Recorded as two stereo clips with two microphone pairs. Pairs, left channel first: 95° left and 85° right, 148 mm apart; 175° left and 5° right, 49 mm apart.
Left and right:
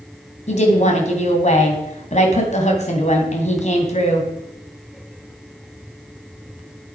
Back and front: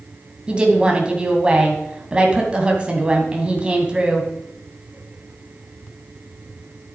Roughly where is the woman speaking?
Ahead left.